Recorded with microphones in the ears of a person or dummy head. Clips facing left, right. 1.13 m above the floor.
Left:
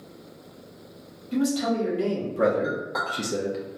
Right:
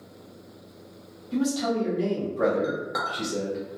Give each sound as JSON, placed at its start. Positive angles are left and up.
{"t": 1.3, "sound": "a man speaking", "side_deg": 20, "distance_m": 1.4}
{"t": 2.6, "sound": "a clink", "side_deg": -10, "distance_m": 1.1}